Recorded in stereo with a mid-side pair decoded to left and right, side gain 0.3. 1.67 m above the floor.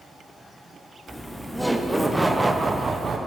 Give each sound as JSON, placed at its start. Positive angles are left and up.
{"t": 1.1, "sound": "laughter", "azimuth_deg": 10, "distance_m": 1.2}